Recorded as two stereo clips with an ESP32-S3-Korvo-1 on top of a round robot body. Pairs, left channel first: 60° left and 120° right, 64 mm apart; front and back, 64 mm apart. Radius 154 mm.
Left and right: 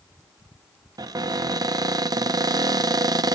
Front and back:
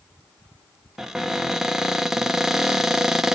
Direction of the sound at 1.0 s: 95° right.